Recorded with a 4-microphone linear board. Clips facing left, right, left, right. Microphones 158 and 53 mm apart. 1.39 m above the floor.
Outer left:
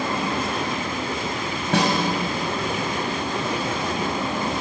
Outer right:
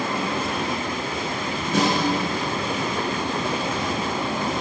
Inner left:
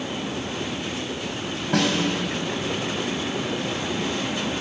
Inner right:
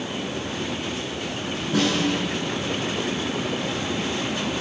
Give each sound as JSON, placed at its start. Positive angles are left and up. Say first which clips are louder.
{"t": 1.7, "sound": "a snare drum", "louder": "even, even", "side_deg": 75, "distance_m": 5.5}